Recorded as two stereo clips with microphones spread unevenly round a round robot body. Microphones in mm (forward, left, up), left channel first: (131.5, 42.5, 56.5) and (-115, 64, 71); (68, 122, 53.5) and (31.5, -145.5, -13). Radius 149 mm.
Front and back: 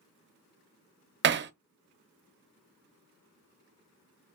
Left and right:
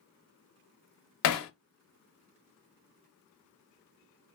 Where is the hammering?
125° left, 0.6 m.